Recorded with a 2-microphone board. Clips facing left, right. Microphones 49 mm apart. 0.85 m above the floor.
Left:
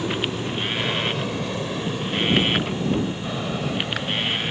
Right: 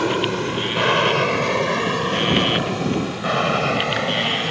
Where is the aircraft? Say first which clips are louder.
Right 5 dB; 65° right (ahead or behind); by 4.5 s 70° right (ahead or behind).